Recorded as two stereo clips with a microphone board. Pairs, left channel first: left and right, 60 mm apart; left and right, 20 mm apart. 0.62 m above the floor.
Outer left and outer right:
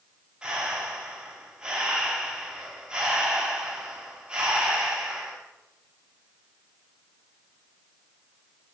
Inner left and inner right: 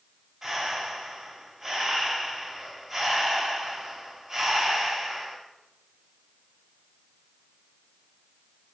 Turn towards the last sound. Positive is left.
turn(degrees=-10)  # may be behind; listen again after turning